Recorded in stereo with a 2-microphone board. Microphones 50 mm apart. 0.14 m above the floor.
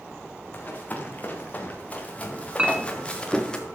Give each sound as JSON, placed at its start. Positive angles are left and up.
{"t": 0.5, "sound": "running footsteps", "side_deg": 35, "distance_m": 5.0}
{"t": 2.6, "sound": "a clink", "side_deg": -20, "distance_m": 0.9}